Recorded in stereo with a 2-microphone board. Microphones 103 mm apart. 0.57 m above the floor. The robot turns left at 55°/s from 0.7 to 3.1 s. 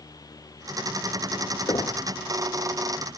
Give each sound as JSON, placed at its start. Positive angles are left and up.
{"t": 1.7, "sound": "knocking", "side_deg": 60, "distance_m": 0.7}